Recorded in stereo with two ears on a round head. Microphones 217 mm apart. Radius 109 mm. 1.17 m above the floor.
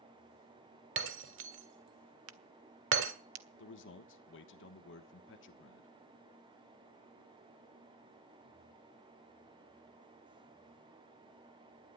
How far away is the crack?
About 1.2 m.